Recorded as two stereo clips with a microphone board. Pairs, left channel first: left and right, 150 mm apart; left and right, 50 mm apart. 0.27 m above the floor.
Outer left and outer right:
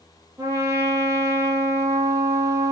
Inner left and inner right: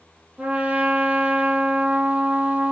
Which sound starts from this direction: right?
A trumpet, at 0.4 s.